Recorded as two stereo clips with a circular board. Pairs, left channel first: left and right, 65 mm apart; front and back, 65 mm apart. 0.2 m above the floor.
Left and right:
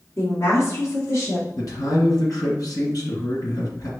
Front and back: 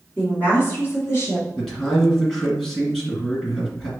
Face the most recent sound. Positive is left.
turn(degrees=85)